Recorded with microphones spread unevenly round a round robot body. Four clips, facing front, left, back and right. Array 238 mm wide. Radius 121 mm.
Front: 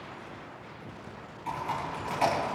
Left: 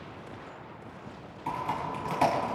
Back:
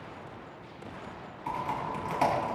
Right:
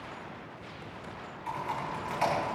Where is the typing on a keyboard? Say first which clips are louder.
Left 3 dB, even; 110° left, 3.5 m.